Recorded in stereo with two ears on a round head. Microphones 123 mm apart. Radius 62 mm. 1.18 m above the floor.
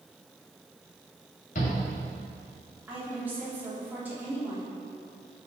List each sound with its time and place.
1.6 s a shout: 65° left (ahead or behind), 2.5 m
2.9 s a woman speaking: 15° right (ahead or behind), 2.5 m